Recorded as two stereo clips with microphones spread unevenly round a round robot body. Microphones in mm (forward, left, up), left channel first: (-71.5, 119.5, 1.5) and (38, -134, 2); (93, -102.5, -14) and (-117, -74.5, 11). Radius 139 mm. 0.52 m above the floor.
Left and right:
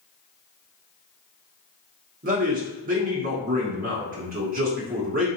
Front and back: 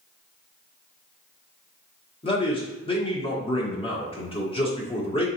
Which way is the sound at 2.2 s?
30° right.